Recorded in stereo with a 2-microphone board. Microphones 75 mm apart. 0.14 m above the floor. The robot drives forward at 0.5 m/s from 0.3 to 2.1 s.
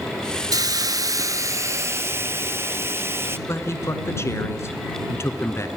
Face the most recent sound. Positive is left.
turn(degrees=40)  # may be behind; listen again after turning